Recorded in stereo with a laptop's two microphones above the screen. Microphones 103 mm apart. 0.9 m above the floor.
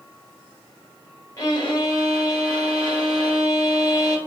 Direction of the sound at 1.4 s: 35° left (ahead or behind).